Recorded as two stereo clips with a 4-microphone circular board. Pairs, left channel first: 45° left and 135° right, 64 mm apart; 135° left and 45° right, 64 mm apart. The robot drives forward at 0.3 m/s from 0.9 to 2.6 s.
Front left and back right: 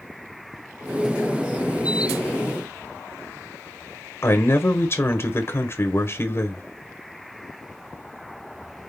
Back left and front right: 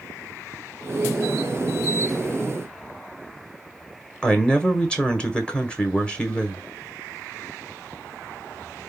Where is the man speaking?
65° left, 1.0 m.